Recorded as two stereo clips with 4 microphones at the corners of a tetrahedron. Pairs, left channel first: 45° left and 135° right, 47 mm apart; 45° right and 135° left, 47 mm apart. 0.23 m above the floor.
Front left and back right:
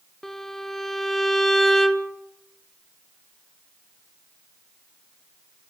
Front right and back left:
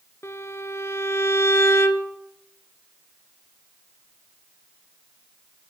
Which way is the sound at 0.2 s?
40° right.